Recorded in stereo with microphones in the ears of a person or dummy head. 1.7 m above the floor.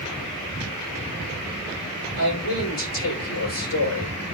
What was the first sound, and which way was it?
A man speaking, 80° left.